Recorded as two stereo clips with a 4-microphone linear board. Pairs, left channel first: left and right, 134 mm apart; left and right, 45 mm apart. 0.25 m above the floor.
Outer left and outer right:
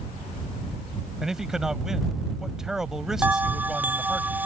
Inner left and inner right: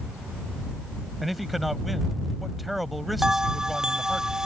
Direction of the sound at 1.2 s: 5° right (ahead or behind).